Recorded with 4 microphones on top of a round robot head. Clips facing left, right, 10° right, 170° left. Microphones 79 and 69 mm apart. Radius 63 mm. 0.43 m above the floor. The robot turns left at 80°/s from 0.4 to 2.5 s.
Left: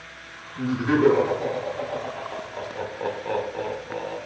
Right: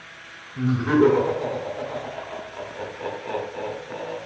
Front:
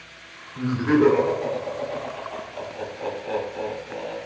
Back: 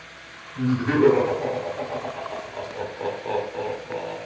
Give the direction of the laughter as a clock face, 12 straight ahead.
1 o'clock.